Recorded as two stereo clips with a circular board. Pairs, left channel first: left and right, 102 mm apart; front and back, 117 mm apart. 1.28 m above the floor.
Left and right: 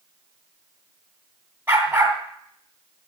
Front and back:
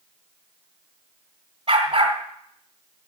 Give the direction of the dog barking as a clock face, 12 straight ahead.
5 o'clock.